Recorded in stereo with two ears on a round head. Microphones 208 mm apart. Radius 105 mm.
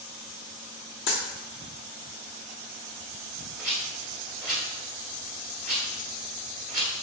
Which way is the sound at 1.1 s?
55° left (ahead or behind).